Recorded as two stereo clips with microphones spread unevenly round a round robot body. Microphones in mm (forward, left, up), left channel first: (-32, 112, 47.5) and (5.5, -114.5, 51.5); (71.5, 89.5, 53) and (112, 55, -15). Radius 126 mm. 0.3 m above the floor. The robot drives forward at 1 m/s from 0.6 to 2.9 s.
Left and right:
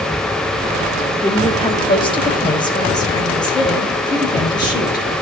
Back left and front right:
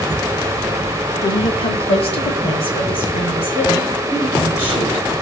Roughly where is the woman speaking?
Left.